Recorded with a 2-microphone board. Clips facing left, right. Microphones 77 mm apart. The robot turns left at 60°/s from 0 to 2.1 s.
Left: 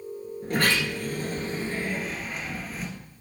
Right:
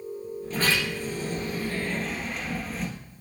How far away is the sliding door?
About 2 m.